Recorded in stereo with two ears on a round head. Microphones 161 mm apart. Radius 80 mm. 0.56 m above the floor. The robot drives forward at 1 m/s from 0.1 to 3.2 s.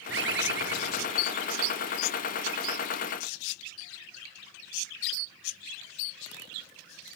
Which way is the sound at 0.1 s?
70° right (ahead or behind).